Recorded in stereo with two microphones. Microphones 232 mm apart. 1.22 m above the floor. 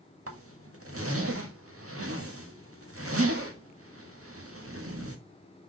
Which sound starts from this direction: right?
A zipper, at 0.3 s.